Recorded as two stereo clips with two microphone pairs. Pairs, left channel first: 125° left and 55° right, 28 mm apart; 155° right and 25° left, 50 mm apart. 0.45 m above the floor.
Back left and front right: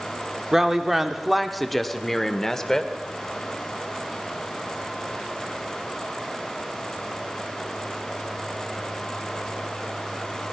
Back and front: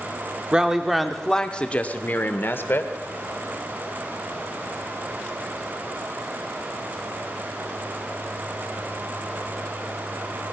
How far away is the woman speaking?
About 0.9 m.